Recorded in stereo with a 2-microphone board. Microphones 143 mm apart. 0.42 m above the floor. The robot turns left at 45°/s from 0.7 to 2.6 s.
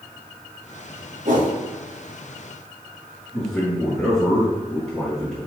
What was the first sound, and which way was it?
A whoosh, 60° right (ahead or behind).